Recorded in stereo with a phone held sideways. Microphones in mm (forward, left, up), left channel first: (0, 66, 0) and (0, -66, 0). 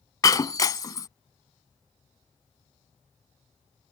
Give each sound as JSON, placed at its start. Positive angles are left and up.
{"t": 0.2, "sound": "breaking glass", "side_deg": 30}